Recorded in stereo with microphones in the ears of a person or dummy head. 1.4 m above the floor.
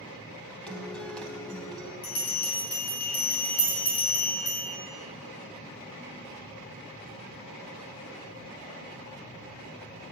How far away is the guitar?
About 0.8 m.